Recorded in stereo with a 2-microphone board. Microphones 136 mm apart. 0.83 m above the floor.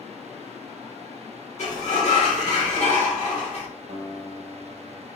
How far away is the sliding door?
About 1.9 m.